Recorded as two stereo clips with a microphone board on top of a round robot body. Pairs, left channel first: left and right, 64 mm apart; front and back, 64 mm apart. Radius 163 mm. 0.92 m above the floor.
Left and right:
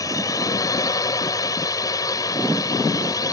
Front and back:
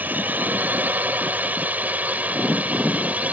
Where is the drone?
115° left; by 3.3 s 110° left.